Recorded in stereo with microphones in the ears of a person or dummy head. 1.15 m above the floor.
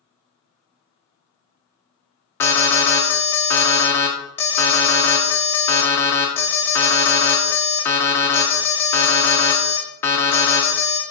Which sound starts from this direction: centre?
An alarm, at 2.4 s.